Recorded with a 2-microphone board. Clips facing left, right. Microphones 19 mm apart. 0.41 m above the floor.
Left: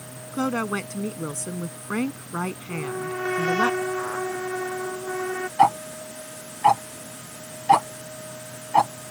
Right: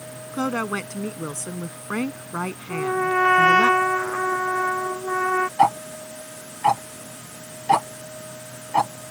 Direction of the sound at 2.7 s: 75° right (ahead or behind).